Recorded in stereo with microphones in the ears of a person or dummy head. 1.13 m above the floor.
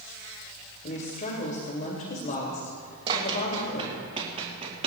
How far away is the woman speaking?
About 2.5 m.